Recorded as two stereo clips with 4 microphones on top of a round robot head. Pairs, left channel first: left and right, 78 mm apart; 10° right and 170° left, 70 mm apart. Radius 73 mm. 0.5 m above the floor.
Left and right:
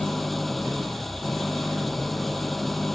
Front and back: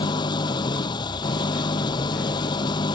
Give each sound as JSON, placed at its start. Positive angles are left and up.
{"t": 0.0, "sound": "an engine running", "azimuth_deg": 0}